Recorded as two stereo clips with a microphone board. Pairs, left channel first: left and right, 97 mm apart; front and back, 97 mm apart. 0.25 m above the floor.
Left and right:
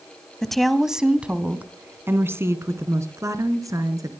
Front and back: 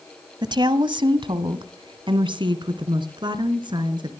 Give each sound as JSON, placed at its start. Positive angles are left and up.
{"t": 0.4, "sound": "a woman speaking", "azimuth_deg": 175, "distance_m": 1.3}